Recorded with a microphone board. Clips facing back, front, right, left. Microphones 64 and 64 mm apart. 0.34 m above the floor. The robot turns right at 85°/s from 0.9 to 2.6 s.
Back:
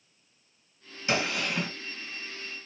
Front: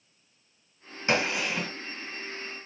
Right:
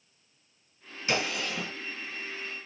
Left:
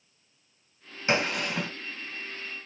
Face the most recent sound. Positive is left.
turn(degrees=175)